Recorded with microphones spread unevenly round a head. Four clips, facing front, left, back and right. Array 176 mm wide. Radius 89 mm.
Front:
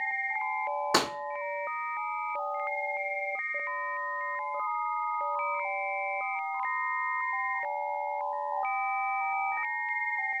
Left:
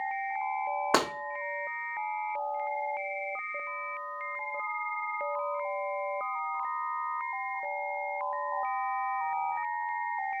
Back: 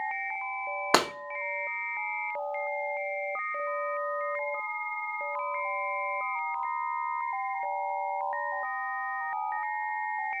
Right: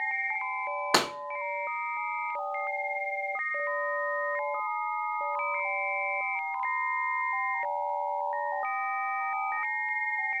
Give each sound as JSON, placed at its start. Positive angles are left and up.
{"t": 0.9, "sound": "breaking glass", "azimuth_deg": 165, "distance_m": 1.0}